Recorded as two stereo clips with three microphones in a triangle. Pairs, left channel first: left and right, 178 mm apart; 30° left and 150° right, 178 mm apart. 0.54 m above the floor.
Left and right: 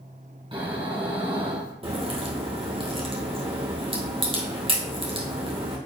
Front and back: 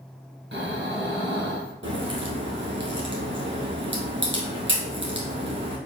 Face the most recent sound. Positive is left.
turn(degrees=-150)